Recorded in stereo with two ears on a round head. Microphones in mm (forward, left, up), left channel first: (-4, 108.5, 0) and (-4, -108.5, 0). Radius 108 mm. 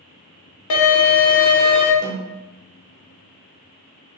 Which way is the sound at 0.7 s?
70° left (ahead or behind).